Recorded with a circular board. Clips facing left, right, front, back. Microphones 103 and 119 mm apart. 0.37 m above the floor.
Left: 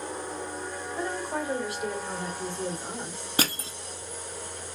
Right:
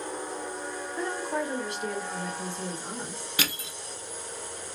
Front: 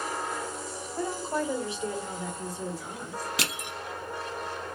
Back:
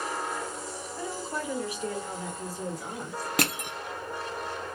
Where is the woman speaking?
Straight ahead, 1.8 m; by 3.3 s 150° left, 1.6 m.